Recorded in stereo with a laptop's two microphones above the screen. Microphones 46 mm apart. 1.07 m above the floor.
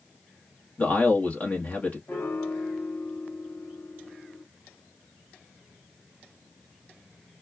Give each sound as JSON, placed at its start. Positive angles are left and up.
{"t": 0.8, "sound": "a man speaking", "side_deg": 40, "distance_m": 1.0}
{"t": 2.1, "sound": "a piano", "side_deg": 50, "distance_m": 0.8}